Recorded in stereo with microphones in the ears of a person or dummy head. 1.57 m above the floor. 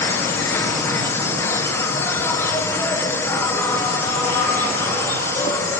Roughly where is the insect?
Centre.